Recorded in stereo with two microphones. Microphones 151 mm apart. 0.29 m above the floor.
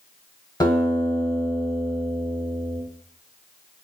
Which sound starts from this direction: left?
A guitar, at 0.6 s.